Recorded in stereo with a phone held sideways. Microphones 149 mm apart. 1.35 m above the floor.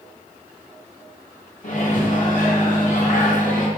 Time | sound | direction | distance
1.6 | a microwave | 60° left (ahead or behind) | 0.8 m